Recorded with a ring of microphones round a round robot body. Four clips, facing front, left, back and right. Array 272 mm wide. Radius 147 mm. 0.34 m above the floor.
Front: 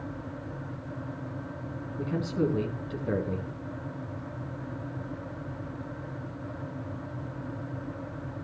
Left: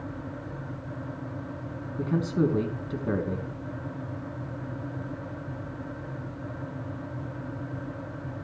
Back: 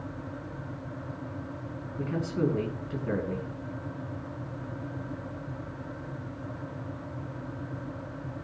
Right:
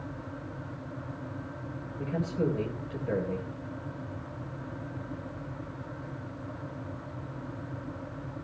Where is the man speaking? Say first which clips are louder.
Left 5 dB, even; 100° left, 4.5 m.